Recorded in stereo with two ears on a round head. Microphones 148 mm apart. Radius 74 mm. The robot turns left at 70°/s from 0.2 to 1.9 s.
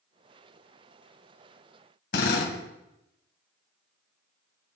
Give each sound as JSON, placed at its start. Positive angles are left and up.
{"t": 2.1, "sound": "a drill", "side_deg": 65, "distance_m": 2.5}